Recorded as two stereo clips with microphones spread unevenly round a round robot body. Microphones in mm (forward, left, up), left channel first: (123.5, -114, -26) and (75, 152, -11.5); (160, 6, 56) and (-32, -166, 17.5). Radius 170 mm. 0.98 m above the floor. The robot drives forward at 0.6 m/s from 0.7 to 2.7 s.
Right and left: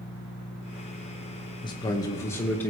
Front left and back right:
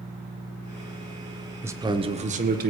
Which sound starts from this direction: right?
A man speaking, at 1.6 s.